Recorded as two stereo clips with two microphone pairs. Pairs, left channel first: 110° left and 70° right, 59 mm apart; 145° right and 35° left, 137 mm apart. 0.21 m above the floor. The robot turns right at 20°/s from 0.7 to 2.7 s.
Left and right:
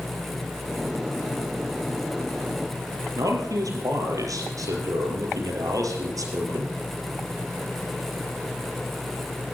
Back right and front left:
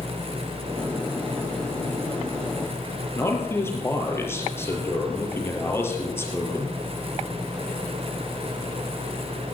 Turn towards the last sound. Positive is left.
turn(degrees=-75)